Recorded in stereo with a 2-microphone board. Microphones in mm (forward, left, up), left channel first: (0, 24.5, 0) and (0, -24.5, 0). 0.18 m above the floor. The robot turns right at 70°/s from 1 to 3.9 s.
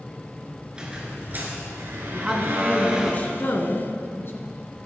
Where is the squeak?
160° right, 2 m; by 3.1 s 10° right, 2 m.